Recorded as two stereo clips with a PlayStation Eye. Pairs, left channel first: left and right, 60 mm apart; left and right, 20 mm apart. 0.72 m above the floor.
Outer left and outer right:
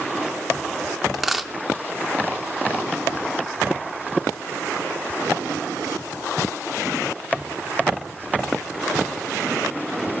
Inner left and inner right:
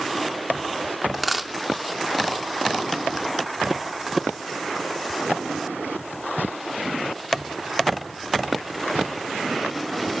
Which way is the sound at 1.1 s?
5° right (ahead or behind).